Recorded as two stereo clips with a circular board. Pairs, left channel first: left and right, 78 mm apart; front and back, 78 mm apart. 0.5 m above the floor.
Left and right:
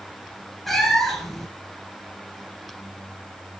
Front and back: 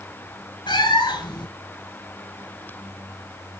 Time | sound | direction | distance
0.7 | a cat meowing | straight ahead | 2.5 m